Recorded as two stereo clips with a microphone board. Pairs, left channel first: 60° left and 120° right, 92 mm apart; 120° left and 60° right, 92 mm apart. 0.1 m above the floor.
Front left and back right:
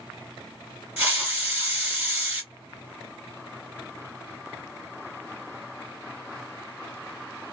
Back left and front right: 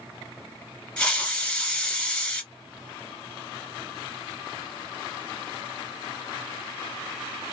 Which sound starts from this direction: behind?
A hiss, at 1.0 s.